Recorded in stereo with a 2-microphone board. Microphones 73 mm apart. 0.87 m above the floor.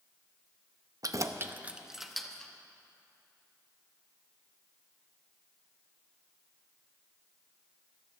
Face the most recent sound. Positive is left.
turn(degrees=10)  # may be behind; listen again after turning